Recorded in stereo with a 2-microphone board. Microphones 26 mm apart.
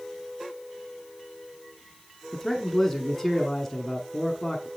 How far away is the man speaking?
About 1.0 m.